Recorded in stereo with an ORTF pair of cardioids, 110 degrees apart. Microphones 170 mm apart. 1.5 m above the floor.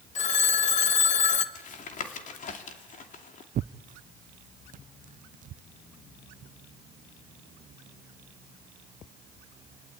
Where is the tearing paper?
50° right, 0.6 m.